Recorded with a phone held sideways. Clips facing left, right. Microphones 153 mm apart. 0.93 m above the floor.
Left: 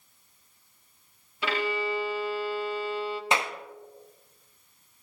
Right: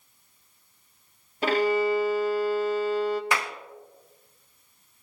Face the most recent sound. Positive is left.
turn(degrees=20)  # may be behind; listen again after turning